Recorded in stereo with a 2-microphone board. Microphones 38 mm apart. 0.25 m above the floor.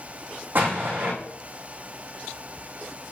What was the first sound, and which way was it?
An explosion, 60° right (ahead or behind).